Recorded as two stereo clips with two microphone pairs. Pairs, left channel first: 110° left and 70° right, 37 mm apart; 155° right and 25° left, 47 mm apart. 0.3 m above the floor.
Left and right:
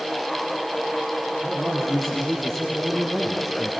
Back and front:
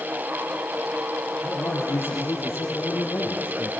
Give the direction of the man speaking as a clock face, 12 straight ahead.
6 o'clock.